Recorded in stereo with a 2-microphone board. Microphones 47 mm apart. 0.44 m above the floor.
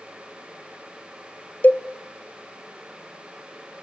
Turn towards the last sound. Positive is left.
turn(degrees=45)  # may be behind; listen again after turning